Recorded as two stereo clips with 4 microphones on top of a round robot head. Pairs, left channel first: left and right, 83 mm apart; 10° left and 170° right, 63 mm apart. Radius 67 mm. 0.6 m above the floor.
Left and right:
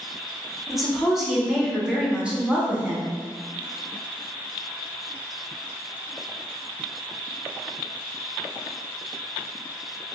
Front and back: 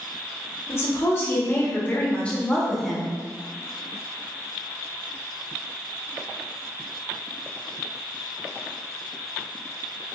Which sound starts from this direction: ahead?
A woman speaking, at 0.7 s.